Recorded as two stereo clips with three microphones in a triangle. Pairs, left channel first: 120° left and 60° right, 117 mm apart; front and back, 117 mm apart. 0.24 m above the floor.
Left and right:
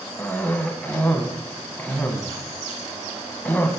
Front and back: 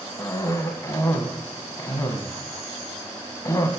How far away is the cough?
About 1.4 m.